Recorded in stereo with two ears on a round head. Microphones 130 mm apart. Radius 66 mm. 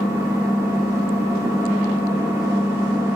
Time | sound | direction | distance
0.0 | an engine running | 20° right (ahead or behind) | 1.1 m